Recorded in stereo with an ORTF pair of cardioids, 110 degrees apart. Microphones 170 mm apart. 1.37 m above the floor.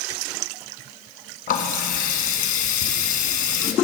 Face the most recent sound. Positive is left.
turn(degrees=65)